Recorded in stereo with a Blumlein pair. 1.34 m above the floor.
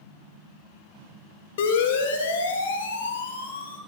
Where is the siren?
55° left, 3.5 m; by 3.8 s 75° left, 4 m.